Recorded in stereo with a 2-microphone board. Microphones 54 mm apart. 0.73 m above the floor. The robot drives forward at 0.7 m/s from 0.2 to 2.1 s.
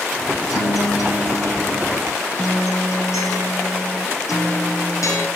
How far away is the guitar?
About 8 m.